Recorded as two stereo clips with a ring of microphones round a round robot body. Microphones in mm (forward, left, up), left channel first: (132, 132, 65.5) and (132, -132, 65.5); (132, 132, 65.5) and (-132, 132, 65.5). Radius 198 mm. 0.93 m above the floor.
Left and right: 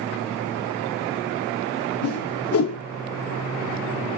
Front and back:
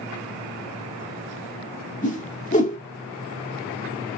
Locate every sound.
2.0 s a whoosh: 60° left, 1.0 m